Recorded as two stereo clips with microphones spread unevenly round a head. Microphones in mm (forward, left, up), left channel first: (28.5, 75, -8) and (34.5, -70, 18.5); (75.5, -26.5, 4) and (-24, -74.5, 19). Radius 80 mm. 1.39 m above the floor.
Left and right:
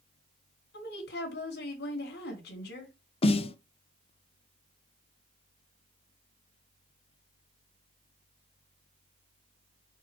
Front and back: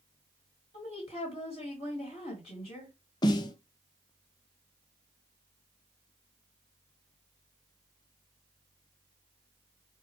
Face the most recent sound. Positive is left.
turn(degrees=65)